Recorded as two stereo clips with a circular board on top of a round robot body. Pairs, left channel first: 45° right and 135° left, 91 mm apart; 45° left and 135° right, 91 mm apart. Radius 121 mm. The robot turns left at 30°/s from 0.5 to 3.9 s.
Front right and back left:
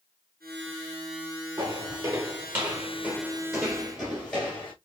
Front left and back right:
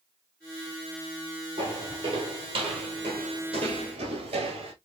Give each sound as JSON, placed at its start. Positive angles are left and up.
{"t": 1.6, "sound": "footsteps", "azimuth_deg": -165, "distance_m": 1.4}